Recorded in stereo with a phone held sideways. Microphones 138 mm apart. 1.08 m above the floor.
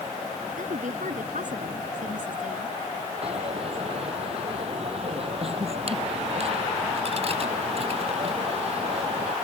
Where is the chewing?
I don't hear chewing.